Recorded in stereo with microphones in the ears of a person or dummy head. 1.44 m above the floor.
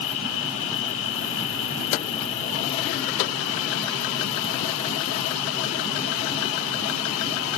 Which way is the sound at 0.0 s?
75° left (ahead or behind).